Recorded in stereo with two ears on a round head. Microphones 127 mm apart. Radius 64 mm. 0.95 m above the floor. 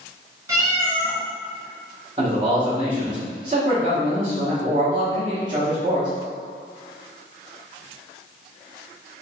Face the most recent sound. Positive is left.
turn(degrees=-35)  # may be behind; listen again after turning